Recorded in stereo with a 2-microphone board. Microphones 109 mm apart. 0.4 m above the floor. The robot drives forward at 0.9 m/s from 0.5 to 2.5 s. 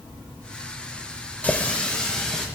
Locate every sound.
1.4 s a running tap: 15° left (ahead or behind), 0.7 m; by 2.5 s 5° left (ahead or behind), 1.5 m